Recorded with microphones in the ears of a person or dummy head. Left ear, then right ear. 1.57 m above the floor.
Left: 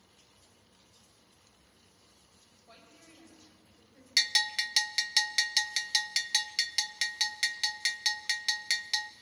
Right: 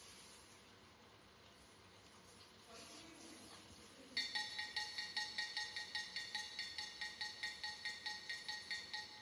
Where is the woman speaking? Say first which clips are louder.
Left 1 dB; 35° left (ahead or behind), 7.5 m; by 4.1 s 30° left (ahead or behind), 8 m.